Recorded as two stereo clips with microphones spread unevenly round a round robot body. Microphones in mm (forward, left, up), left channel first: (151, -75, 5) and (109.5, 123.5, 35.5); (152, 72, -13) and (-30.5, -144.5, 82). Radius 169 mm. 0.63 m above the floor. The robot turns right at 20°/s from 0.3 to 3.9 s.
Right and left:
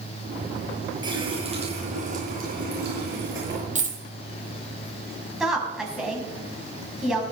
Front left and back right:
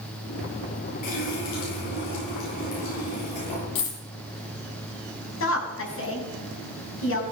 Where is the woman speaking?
15° left, 5.5 m.